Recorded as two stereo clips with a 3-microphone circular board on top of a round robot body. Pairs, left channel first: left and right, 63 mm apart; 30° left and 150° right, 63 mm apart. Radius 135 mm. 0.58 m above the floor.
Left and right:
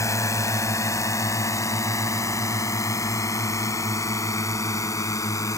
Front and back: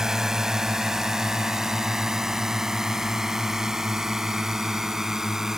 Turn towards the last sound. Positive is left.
turn(degrees=130)